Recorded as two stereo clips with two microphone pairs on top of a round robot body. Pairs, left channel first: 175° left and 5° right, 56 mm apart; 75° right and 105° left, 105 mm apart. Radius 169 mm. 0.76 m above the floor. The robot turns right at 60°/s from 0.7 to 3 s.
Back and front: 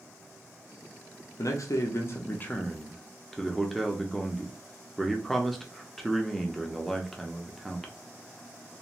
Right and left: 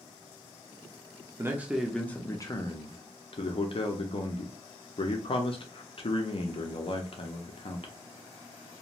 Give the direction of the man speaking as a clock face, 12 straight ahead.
6 o'clock.